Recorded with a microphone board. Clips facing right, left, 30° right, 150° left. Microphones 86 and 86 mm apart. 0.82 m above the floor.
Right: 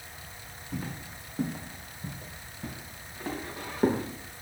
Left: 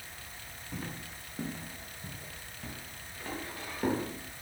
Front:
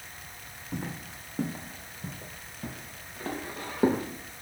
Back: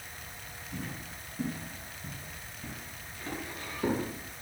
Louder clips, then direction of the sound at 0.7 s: Right 4 dB, front 4 dB; 10° right.